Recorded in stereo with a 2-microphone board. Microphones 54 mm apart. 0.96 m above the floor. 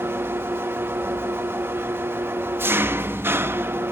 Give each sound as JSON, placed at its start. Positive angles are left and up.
{"t": 0.0, "sound": "an engine running", "side_deg": -45, "distance_m": 1.0}